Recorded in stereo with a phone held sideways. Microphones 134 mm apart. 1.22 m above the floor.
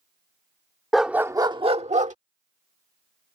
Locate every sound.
0.9 s a dog barking: centre (ahead or behind); by 2.1 s 65° right (ahead or behind)